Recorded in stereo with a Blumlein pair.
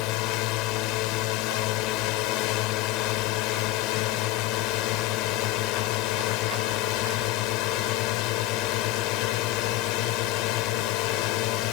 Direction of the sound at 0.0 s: 40° left.